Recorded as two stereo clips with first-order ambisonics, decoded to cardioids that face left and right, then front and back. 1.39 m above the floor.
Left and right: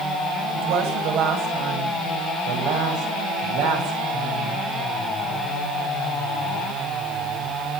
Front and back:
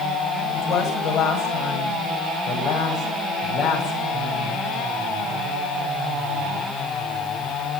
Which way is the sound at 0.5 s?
60° right.